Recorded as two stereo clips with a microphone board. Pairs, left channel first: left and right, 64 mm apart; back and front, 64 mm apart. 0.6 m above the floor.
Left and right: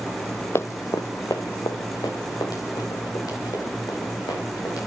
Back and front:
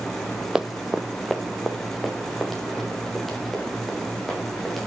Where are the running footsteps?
75° left, 0.7 m; by 4.8 s 95° left, 7 m.